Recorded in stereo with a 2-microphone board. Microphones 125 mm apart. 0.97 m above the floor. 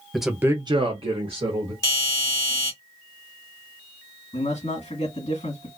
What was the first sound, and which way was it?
A man speaking, centre (ahead or behind).